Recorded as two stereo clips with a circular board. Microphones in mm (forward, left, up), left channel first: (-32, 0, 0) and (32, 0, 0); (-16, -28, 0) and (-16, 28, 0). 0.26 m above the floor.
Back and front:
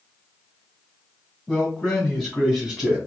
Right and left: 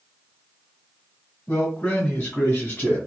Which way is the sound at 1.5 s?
120° right.